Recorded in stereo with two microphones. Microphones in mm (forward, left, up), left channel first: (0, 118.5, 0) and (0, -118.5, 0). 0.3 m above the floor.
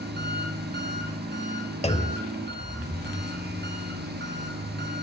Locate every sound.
0.0 s an engine running: 45° right (ahead or behind), 1.9 m
1.8 s a clunk: 25° left (ahead or behind), 0.8 m